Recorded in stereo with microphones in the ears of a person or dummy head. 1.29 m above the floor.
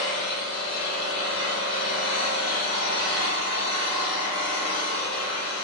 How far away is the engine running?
About 1.8 m.